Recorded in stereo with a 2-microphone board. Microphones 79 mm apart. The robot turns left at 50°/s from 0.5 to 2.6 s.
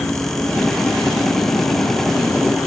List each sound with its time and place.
0.0 s an insect: 155° left, 1.4 m; by 2.7 s 50° left, 1.4 m